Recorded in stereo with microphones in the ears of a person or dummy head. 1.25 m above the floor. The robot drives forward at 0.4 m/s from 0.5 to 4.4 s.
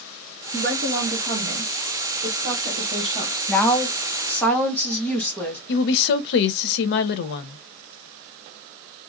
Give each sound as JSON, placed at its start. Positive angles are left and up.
{"t": 0.5, "sound": "a woman speaking", "side_deg": -50, "distance_m": 0.8}
{"t": 3.5, "sound": "a woman speaking", "side_deg": 5, "distance_m": 0.6}
{"t": 5.7, "sound": "a woman speaking", "side_deg": 65, "distance_m": 0.6}